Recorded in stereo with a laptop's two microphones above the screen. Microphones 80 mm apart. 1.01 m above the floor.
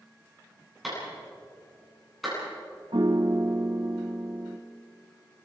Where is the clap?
Centre (ahead or behind), 10 m.